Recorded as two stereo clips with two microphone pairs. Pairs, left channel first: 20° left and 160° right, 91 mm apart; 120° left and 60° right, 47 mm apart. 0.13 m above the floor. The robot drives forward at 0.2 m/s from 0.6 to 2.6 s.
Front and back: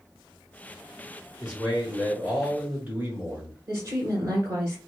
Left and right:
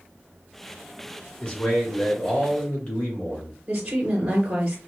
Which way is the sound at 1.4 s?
135° left.